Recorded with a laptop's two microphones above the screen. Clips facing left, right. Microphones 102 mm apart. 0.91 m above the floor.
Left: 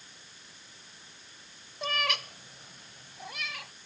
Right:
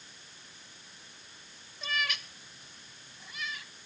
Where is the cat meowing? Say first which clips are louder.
Left 3 dB; 55° left (ahead or behind); by 3.7 s 75° left (ahead or behind).